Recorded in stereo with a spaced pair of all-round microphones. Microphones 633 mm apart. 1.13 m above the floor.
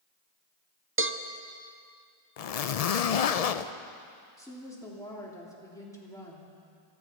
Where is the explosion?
I don't hear an explosion.